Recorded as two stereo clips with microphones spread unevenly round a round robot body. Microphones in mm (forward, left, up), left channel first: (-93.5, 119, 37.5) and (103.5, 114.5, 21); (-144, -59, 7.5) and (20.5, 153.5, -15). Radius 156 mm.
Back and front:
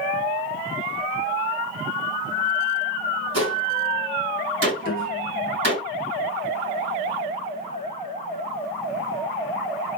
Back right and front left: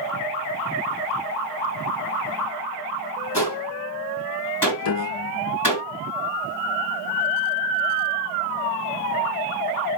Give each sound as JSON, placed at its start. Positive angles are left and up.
{"t": 3.3, "sound": "a gunshot", "azimuth_deg": -45, "distance_m": 3.5}
{"t": 4.8, "sound": "a piano", "azimuth_deg": -140, "distance_m": 0.5}